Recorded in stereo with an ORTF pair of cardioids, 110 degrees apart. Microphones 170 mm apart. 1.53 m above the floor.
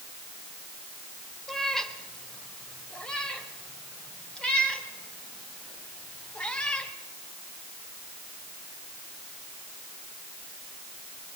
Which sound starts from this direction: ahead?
A cat meowing, at 1.5 s.